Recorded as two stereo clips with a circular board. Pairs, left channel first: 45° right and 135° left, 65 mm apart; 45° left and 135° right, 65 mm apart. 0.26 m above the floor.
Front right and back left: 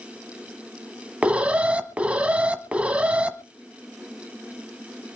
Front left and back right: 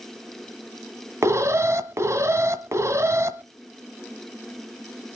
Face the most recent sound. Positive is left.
turn(degrees=-160)